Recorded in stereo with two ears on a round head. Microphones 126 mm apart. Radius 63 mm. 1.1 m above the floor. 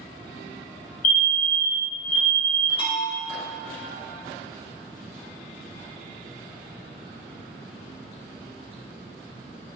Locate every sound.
1.0 s a fire alarm: 60° left (ahead or behind), 3 m
2.8 s a bell: 40° left (ahead or behind), 2.5 m